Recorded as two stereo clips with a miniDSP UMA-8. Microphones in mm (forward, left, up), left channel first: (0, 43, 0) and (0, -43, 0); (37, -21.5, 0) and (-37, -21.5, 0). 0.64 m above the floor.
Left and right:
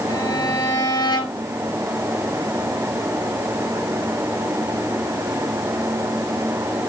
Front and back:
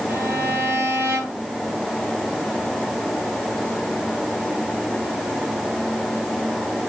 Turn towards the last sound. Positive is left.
turn(degrees=120)